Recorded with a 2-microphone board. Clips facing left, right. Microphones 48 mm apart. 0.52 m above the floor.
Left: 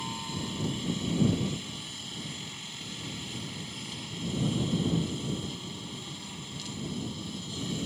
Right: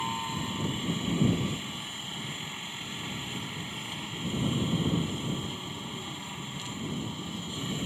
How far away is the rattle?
I don't hear a rattle.